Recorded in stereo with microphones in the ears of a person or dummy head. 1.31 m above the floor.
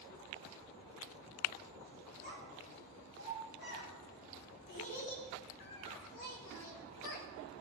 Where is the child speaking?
65° left (ahead or behind), 4 m; by 7.3 s 55° left (ahead or behind), 1.2 m.